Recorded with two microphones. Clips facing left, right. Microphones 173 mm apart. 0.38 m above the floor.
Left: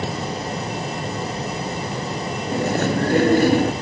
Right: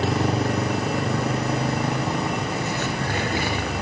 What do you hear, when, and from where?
0.0 s a motorcycle: 80° right; by 3.8 s 65° right (ahead or behind)
2.5 s chewing: 50° left (ahead or behind)